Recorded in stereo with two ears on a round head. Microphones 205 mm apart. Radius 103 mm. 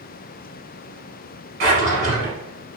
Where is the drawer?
55° right (ahead or behind), 2.0 m.